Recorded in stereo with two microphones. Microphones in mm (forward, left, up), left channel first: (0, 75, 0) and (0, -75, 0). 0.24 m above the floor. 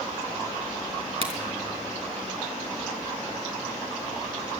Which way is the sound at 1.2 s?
45° right (ahead or behind).